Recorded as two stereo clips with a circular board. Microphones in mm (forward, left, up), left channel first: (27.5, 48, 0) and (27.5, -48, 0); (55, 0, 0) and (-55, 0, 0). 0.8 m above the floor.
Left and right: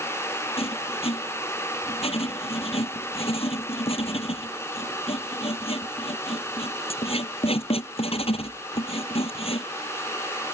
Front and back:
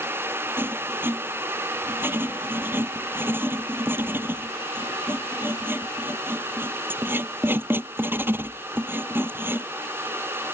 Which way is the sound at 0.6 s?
110° left.